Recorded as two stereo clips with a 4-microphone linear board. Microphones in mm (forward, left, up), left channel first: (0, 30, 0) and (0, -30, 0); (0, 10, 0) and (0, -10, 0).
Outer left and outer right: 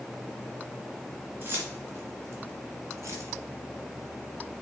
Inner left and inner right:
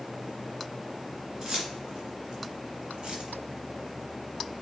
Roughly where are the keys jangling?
Right.